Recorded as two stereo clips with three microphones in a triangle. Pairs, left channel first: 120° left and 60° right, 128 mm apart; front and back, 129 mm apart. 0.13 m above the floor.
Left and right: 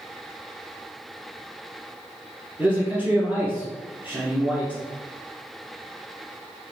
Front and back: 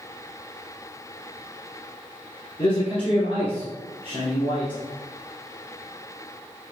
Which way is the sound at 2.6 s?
15° left.